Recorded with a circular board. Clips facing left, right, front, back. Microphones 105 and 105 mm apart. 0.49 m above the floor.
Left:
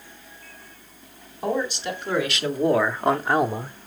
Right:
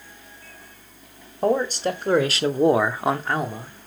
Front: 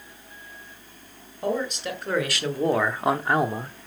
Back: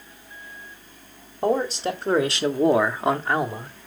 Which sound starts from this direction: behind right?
A man speaking, at 1.4 s.